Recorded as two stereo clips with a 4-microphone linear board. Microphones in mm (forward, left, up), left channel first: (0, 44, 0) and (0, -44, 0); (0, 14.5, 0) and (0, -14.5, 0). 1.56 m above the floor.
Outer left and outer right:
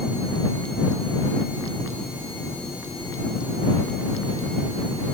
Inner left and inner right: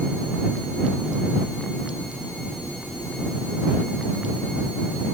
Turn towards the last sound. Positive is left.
No sound to turn to.